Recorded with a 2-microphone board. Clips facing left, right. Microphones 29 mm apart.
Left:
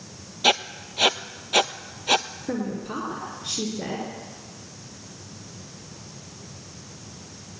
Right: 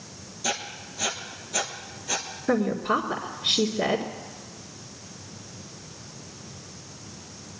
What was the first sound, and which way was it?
Writing, 70° left (ahead or behind).